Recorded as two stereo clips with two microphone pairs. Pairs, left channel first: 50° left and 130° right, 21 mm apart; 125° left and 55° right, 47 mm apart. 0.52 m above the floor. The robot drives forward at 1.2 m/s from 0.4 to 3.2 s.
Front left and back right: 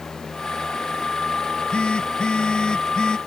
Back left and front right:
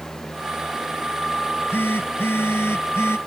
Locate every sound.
1.4 s a phone buzzing: 90° left; by 3.2 s 105° left